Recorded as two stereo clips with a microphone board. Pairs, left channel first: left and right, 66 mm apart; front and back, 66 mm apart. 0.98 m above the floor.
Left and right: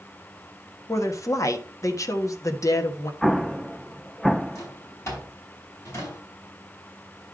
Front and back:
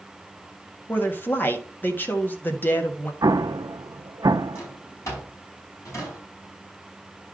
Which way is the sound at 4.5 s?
45° left.